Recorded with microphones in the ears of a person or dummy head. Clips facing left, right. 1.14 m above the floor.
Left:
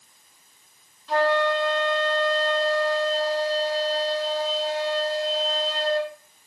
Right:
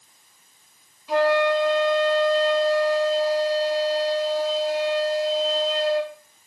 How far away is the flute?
About 2 m.